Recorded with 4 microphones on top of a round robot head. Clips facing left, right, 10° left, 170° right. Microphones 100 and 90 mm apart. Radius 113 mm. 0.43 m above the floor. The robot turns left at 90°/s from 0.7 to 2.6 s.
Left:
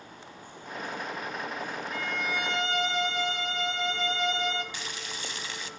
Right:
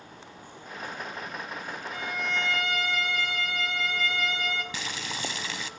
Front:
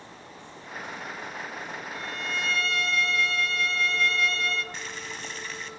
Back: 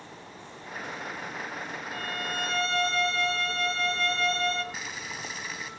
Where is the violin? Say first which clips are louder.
Right 1 dB, back 1 dB; 155° right, 1.7 m; by 4.6 s 145° left, 1.7 m.